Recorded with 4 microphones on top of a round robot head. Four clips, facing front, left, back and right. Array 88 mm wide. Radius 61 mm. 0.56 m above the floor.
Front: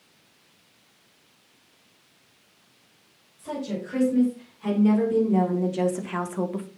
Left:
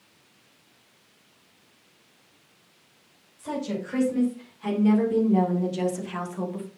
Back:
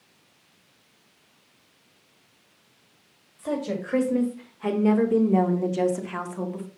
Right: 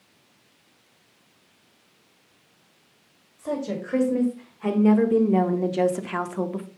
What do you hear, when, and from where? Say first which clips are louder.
3.4 s a woman speaking: right 2 dB, back 3 dB; 145° right, 3.5 m; by 6.7 s 50° right, 1.6 m